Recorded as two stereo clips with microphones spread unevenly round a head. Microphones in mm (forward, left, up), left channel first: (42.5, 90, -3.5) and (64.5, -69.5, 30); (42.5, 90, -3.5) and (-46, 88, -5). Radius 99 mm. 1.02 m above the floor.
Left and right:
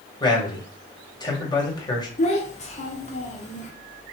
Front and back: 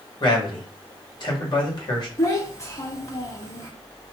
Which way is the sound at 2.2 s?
55° left.